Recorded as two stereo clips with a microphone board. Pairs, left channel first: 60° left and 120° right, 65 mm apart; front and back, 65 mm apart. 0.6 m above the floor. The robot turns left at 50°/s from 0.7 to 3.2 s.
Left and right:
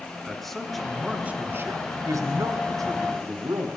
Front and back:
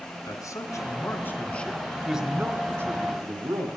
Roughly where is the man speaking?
Ahead right.